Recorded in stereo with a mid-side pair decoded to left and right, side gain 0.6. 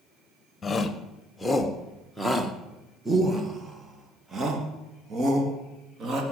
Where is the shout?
25° left, 1.8 m; by 6.2 s 45° right, 3.5 m.